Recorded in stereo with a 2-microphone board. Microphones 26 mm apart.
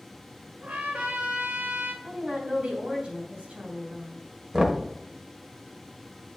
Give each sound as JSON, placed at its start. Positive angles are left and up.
{"t": 0.6, "sound": "a trumpet", "side_deg": -75, "distance_m": 1.6}
{"t": 2.0, "sound": "a woman speaking", "side_deg": -50, "distance_m": 2.5}
{"t": 4.5, "sound": "knocking", "side_deg": -20, "distance_m": 1.0}